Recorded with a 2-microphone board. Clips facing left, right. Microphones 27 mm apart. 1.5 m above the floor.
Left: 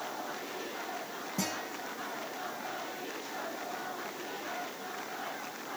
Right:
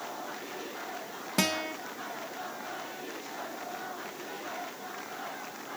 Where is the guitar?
70° right (ahead or behind), 1.4 m.